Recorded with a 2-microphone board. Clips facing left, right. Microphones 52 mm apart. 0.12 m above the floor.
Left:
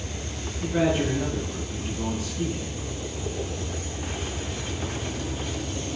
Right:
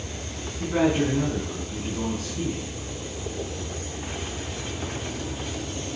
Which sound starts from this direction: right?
A man speaking, at 0.6 s.